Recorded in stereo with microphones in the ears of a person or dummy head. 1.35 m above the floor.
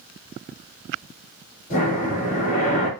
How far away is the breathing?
About 2 m.